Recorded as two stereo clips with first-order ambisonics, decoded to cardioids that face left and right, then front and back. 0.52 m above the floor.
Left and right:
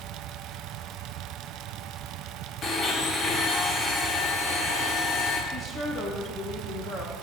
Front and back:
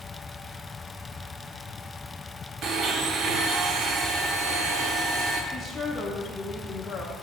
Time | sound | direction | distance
2.6 | a blender | 140° left | 0.7 m
5.5 | a woman speaking | 60° left | 0.8 m